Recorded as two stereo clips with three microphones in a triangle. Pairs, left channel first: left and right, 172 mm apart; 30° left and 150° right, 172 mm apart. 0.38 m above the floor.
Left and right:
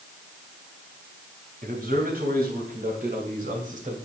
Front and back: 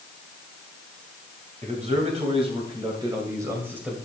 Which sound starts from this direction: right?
A man speaking, at 1.6 s.